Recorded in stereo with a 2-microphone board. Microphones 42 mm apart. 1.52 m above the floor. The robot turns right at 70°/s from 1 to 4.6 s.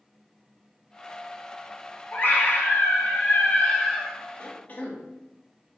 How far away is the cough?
About 0.6 m.